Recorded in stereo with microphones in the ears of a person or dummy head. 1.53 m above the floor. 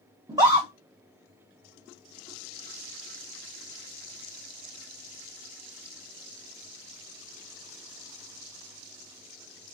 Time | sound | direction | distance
0.3 | a scream | 15° right (ahead or behind) | 0.7 m